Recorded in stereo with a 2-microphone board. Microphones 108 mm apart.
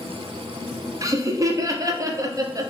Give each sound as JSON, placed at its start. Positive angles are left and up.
{"t": 1.0, "sound": "laughter", "side_deg": -30, "distance_m": 0.5}